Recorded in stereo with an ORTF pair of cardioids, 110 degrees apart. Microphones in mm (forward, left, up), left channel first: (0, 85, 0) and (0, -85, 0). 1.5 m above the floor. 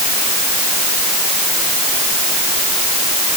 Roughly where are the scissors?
I don't hear scissors.